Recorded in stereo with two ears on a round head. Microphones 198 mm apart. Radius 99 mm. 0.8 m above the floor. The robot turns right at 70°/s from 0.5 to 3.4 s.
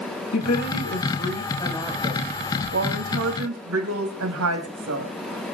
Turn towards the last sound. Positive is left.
turn(degrees=-75)